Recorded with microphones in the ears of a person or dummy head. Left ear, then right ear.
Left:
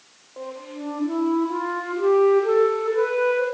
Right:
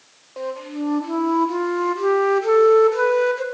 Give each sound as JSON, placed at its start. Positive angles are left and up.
{"t": 0.4, "sound": "a flute", "side_deg": -65, "distance_m": 3.0}